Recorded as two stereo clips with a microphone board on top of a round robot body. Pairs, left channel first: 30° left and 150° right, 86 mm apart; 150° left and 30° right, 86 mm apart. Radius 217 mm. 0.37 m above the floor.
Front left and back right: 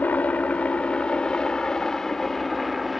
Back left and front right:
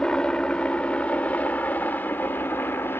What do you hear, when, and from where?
0.0 s a helicopter: 80° left; by 3.0 s 125° left